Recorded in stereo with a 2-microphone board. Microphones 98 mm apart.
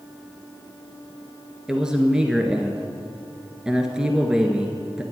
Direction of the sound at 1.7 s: 5° right (ahead or behind).